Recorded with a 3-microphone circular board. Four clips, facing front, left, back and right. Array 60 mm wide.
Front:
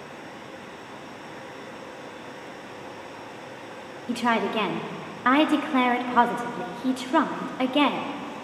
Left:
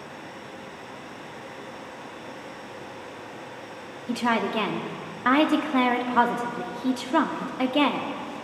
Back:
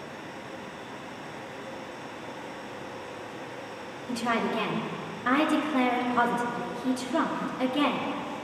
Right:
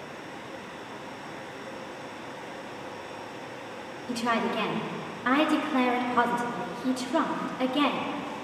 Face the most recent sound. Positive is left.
turn(degrees=35)